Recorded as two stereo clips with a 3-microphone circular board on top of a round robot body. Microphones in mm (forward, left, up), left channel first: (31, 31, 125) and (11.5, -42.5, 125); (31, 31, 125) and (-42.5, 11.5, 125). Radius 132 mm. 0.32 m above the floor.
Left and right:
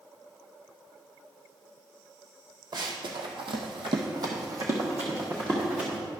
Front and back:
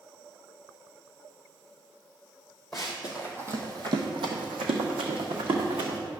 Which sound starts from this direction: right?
Running footsteps, at 2.7 s.